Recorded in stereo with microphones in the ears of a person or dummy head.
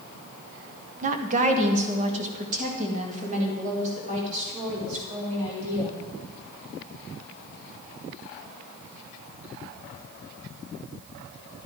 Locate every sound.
1.0 s a woman speaking: 50° right (ahead or behind), 1.1 m